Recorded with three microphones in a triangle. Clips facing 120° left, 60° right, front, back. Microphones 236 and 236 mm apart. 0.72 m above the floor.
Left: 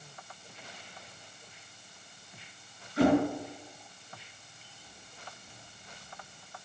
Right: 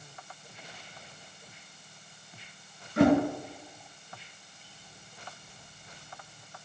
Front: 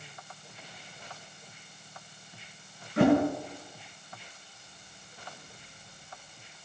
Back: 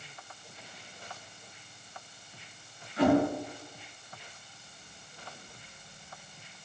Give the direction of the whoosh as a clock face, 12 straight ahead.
1 o'clock.